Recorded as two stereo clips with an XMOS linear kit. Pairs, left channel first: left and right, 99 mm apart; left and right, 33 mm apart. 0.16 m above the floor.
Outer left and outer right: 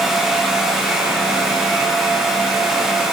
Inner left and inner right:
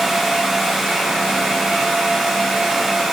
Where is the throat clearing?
I don't hear throat clearing.